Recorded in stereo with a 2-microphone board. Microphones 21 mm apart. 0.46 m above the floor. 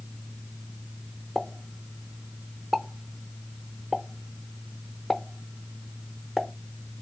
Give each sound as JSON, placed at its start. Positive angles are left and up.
{"t": 1.4, "sound": "a pop", "side_deg": 10, "distance_m": 0.8}